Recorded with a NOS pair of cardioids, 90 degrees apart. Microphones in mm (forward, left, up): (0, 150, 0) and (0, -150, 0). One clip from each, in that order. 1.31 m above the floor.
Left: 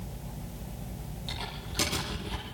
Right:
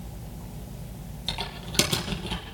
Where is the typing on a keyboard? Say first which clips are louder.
Right 6 dB; 70° right, 7.5 m.